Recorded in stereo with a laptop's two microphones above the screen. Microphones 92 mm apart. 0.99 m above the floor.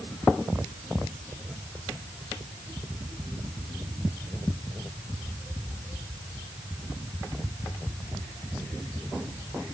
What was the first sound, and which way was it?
Only background noise.